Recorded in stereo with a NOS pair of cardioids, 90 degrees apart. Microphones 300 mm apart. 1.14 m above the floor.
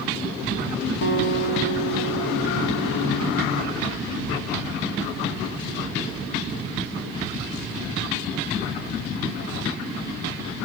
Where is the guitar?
40° left, 3.5 m.